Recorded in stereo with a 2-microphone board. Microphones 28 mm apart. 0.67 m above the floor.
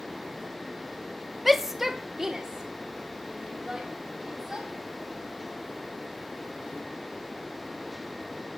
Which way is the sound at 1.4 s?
5° right (ahead or behind).